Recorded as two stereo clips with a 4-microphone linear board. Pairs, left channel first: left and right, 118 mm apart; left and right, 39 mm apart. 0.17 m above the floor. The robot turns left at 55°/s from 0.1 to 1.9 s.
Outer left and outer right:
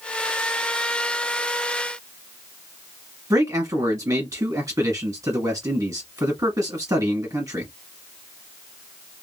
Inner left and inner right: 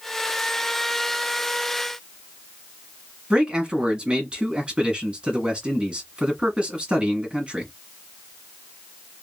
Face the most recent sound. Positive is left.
turn(degrees=-30)  # may be behind; listen again after turning